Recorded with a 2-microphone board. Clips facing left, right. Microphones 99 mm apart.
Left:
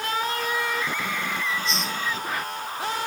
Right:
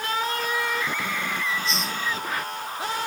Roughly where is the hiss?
Centre.